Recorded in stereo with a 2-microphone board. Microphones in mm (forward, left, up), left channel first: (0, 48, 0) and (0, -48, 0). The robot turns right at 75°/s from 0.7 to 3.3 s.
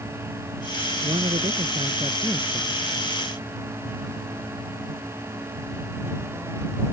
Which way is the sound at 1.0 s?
115° right.